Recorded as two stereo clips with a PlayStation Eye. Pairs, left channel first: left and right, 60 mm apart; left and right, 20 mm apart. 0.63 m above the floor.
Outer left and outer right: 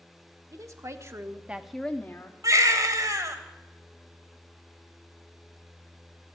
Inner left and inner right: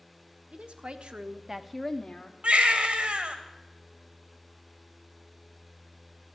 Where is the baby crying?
75° right (ahead or behind), 1.6 m.